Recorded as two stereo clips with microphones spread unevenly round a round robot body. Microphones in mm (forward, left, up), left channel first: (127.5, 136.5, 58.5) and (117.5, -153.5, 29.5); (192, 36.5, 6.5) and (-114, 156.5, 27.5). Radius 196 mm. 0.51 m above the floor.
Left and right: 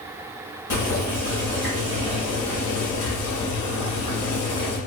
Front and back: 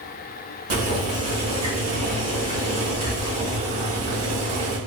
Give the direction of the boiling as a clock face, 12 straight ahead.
8 o'clock.